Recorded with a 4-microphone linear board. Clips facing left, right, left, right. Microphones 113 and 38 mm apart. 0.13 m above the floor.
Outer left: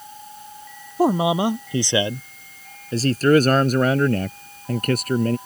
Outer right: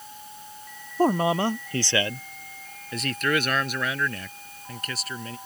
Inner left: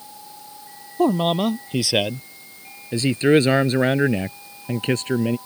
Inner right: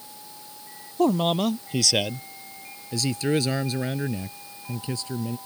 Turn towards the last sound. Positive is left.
turn(degrees=55)  # may be behind; listen again after turning